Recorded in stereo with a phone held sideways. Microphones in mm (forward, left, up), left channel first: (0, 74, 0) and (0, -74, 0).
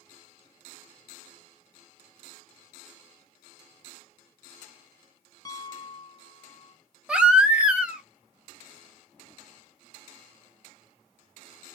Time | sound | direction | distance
5.5 | a piano | 25° left (ahead or behind) | 0.8 m
7.1 | a baby crying | 5° right (ahead or behind) | 0.9 m